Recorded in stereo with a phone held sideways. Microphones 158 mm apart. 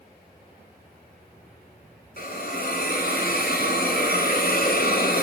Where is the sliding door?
No sliding door in this recording.